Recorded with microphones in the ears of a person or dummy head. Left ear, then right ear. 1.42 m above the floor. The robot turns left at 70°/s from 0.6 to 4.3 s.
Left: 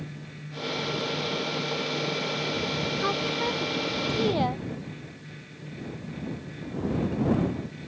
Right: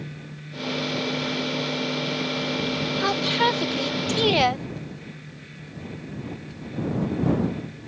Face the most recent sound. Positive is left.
turn(degrees=-110)